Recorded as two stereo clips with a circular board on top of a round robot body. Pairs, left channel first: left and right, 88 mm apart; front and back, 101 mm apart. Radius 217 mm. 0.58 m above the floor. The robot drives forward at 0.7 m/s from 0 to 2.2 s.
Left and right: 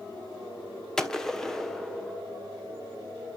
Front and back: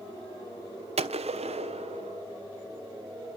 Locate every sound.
1.0 s a gunshot: 175° left, 1.3 m